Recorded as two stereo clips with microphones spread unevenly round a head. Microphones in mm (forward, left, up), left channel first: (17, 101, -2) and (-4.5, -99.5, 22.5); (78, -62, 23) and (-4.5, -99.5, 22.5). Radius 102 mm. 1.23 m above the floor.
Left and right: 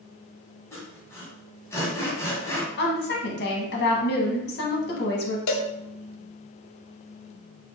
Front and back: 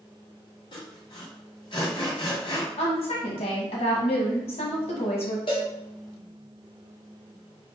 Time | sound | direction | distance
0.7 | sawing | 5° left | 2 m
2.8 | a woman speaking | 45° left | 1.3 m
5.5 | a cowbell | 85° left | 0.7 m